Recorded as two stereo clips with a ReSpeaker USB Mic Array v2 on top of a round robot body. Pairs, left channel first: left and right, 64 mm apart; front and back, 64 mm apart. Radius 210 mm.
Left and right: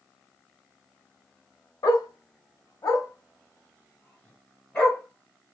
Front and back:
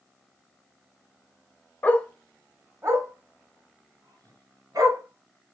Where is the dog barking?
60° left, 0.6 m; by 5.5 s 155° left, 2.5 m.